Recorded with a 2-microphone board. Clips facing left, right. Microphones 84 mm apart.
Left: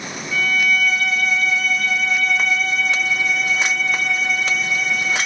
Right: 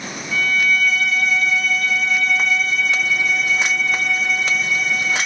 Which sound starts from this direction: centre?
A violin, at 0.3 s.